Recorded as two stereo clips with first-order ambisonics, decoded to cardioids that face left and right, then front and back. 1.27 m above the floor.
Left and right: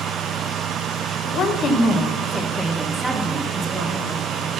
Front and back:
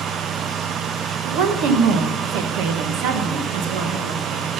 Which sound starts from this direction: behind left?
A woman speaking, at 1.2 s.